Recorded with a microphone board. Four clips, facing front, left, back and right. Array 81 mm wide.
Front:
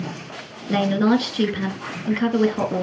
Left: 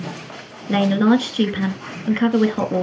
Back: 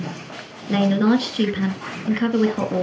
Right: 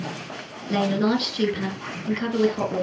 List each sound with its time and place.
0.7 s a woman speaking: 90° left, 1.2 m